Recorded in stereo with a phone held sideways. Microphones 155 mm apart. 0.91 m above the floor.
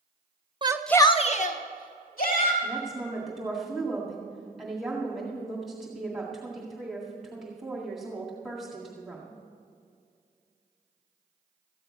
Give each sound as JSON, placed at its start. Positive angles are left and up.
{"t": 0.6, "sound": "a shout", "side_deg": -30, "distance_m": 0.6}
{"t": 2.6, "sound": "a woman speaking", "side_deg": 0, "distance_m": 2.0}